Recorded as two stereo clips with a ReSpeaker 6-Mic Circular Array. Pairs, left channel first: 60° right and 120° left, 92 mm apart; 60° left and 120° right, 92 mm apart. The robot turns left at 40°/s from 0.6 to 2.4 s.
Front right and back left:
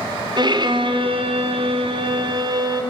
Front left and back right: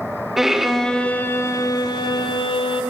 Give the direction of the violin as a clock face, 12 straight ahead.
7 o'clock.